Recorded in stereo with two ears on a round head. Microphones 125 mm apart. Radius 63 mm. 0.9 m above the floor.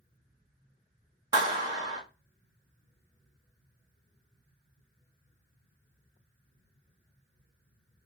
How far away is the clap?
About 1.3 m.